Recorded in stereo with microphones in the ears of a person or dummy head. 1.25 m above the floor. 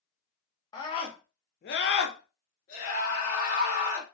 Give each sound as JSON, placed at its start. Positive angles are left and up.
{"t": 0.7, "sound": "a scream", "side_deg": 20, "distance_m": 0.7}